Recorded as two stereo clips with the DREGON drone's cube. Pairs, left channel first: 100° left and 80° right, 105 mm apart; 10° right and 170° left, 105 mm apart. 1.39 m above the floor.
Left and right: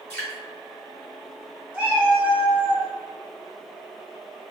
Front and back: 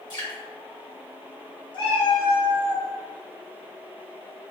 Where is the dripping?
20° left, 1.7 m.